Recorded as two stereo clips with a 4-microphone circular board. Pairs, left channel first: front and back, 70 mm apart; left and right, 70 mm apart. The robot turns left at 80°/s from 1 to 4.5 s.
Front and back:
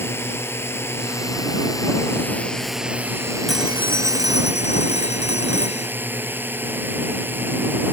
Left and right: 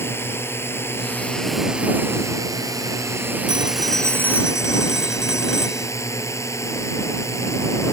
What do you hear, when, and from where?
0.0 s a drone: 45° left; by 7.9 s 125° left
3.5 s a phone ringing: 90° right; by 5.9 s 170° right